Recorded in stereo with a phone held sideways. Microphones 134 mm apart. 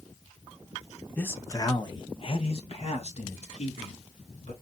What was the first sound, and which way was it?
A man speaking, 10° left (ahead or behind).